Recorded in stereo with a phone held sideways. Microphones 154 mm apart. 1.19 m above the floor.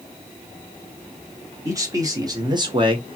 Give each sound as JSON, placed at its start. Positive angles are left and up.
{"t": 1.6, "sound": "a man speaking", "side_deg": -20, "distance_m": 1.6}